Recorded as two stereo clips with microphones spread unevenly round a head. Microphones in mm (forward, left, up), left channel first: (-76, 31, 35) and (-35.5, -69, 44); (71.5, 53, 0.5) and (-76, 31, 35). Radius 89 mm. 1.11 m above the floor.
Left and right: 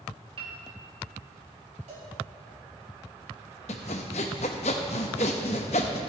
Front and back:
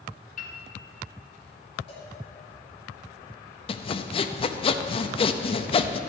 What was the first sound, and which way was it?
A piano, 20° right.